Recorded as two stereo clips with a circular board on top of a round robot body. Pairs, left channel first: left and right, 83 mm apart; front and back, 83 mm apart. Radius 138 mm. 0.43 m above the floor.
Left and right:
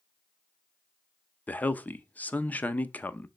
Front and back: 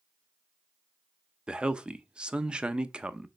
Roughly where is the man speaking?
Behind left.